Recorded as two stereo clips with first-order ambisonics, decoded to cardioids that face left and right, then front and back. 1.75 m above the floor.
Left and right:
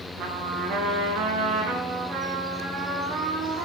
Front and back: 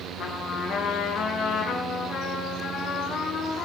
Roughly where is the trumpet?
Ahead right.